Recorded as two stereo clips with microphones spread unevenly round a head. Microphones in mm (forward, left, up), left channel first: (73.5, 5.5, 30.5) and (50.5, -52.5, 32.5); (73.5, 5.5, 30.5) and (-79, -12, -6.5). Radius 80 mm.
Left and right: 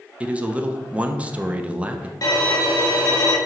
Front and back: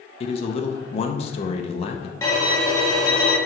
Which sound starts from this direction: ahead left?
A violin, at 2.2 s.